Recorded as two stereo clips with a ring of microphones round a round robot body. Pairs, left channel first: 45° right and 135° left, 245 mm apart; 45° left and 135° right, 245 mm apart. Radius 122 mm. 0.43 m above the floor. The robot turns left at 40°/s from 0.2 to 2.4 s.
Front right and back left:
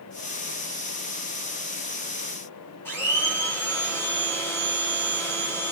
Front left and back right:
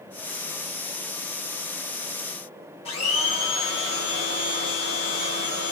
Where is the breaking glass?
I don't hear breaking glass.